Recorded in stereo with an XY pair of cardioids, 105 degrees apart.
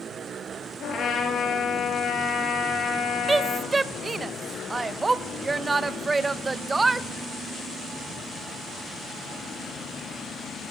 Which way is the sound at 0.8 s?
60° left.